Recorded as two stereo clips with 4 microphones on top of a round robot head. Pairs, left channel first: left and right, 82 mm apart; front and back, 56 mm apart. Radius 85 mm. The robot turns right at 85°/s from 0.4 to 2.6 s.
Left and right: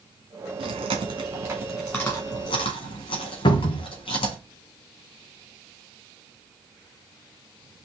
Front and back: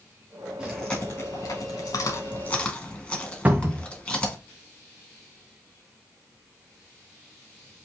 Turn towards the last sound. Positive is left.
turn(degrees=120)